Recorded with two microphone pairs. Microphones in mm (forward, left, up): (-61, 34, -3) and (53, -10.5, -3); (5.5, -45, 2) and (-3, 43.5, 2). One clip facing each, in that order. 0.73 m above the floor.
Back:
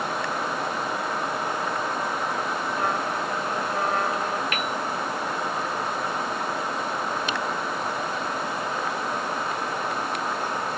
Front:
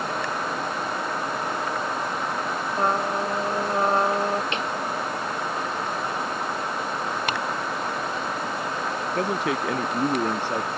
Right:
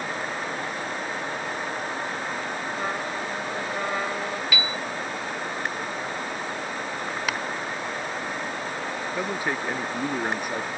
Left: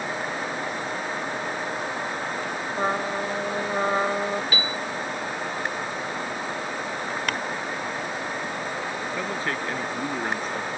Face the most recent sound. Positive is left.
turn(degrees=-10)